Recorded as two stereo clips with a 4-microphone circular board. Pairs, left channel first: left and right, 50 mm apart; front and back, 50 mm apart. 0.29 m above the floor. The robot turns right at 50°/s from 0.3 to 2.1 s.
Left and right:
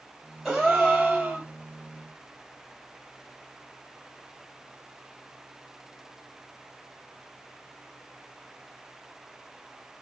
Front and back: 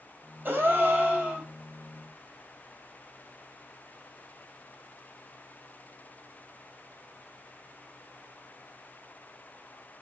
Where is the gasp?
165° right, 1.2 m; by 1.5 s 115° right, 1.2 m.